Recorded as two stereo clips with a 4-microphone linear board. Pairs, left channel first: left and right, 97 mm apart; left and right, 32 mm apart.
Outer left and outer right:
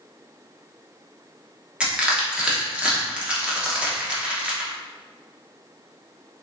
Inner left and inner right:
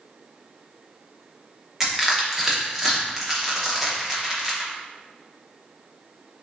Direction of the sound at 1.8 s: 10° right (ahead or behind).